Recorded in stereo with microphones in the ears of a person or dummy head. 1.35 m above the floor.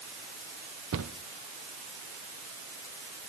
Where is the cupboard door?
70° right (ahead or behind), 0.7 m.